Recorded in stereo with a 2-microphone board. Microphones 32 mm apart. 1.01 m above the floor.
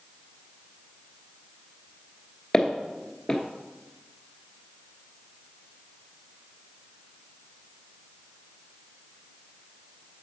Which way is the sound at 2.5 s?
20° left (ahead or behind).